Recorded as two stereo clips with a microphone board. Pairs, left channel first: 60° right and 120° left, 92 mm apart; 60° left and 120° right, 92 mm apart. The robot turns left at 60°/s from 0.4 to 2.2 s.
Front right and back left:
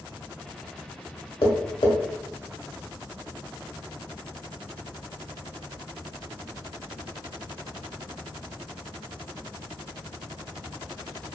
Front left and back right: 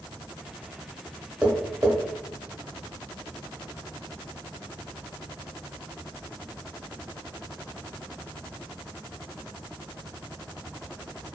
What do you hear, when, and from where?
1.4 s tapping: 40° right, 0.8 m; by 1.9 s 70° right, 0.8 m